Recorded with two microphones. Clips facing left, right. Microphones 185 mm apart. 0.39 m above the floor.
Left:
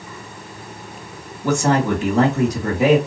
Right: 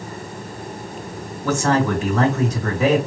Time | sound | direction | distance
1.4 | a man speaking | 15° left (ahead or behind) | 3 m